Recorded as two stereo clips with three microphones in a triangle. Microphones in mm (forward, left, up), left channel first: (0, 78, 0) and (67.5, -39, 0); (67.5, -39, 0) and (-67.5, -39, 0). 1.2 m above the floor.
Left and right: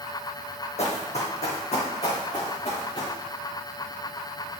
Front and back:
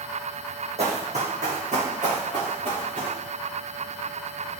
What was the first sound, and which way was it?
Running footsteps, 150° left.